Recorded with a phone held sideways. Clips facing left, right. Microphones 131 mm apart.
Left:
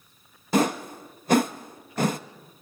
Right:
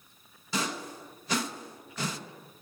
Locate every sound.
0.5 s a whoosh: 55° left (ahead or behind), 0.6 m